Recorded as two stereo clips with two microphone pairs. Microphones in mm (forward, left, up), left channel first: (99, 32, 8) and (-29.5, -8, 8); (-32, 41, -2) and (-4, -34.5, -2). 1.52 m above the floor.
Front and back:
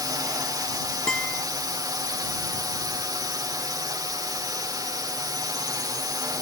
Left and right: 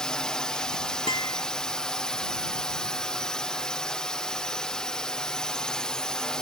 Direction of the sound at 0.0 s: Straight behind.